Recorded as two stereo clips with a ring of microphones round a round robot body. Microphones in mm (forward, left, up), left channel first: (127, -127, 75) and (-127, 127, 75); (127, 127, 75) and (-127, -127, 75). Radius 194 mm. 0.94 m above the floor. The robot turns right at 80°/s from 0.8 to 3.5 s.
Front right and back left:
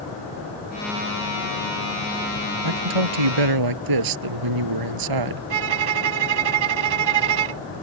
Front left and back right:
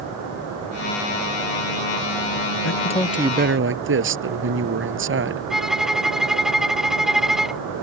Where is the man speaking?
95° left; by 5.4 s 165° left.